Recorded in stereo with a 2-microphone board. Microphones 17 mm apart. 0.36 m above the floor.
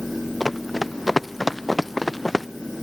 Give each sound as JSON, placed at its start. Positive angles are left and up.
{"t": 0.4, "sound": "running footsteps", "side_deg": 0}